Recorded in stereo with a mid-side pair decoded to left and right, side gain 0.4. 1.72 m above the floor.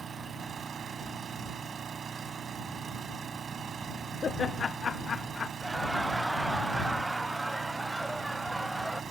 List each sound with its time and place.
0.0 s an engine running: 50° right
4.2 s laughter: 50° left
5.6 s laughter: 10° right